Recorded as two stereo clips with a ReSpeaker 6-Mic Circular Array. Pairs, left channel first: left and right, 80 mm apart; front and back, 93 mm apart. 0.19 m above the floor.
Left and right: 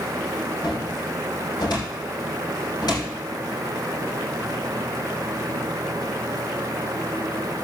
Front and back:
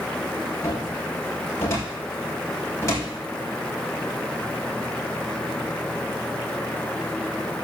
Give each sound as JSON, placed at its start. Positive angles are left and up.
{"t": 0.6, "sound": "a cupboard door", "azimuth_deg": 55, "distance_m": 6.0}